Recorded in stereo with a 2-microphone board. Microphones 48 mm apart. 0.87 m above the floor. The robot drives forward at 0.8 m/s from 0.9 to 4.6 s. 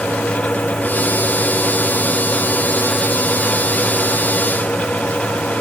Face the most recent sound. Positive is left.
No sound to turn to.